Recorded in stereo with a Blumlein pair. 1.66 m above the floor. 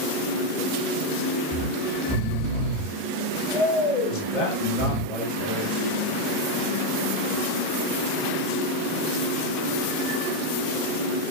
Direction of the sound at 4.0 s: 30° left.